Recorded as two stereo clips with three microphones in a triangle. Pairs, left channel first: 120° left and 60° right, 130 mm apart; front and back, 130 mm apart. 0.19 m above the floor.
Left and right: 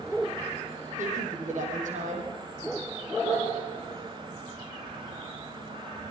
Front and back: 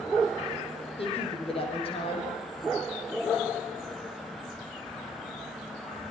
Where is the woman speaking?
45° right, 8.5 m.